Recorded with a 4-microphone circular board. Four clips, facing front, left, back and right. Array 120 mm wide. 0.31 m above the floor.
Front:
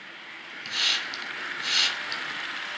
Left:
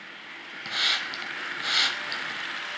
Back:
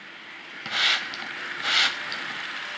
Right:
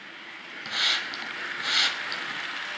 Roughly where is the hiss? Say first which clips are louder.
Even, back 5 dB; behind.